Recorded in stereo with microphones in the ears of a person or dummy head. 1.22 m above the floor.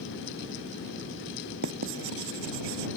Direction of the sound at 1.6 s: 65° right (ahead or behind).